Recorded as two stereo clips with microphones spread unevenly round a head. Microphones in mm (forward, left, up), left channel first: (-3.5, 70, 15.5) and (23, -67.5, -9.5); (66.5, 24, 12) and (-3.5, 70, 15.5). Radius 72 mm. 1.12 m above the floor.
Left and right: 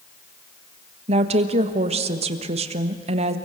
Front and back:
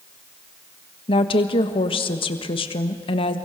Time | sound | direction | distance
1.1 | a woman speaking | 40° right | 1.4 m